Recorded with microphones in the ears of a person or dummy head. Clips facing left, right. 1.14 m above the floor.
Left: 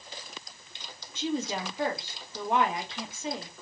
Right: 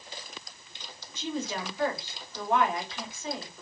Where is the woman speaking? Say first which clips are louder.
Left 3 dB; 20° left (ahead or behind), 1.2 m.